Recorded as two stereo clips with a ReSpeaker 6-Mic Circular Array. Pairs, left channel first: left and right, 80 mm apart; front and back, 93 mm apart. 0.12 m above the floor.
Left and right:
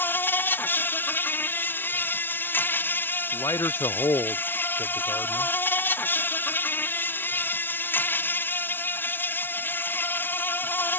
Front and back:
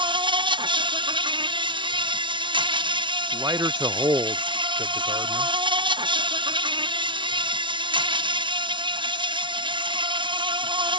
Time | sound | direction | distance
0.0 | an insect | 155° left | ?
3.3 | a man speaking | 130° left | ?